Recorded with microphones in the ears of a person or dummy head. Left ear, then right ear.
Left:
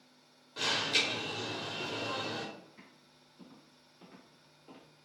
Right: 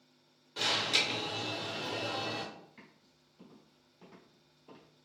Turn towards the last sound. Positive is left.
turn(degrees=25)  # may be behind; listen again after turning